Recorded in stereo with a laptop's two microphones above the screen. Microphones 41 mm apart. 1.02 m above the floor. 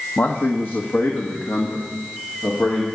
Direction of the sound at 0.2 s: 70° left (ahead or behind).